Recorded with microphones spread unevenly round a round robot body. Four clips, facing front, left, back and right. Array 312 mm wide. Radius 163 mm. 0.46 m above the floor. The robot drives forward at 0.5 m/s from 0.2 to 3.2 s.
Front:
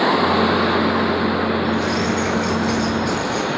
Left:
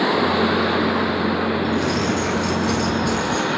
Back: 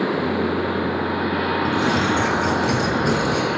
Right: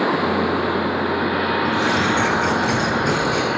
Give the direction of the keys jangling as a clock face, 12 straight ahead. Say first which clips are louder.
Right 1 dB, even; 6 o'clock.